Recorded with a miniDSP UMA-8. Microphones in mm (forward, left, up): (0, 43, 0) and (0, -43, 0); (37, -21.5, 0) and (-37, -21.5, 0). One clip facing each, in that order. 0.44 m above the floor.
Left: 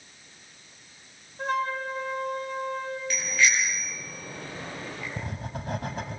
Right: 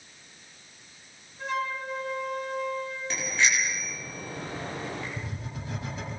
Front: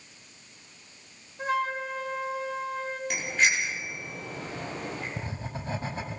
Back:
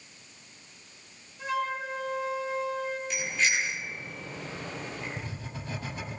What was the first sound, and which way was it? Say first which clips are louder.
A flute: left 3 dB, front 2 dB; 50° left.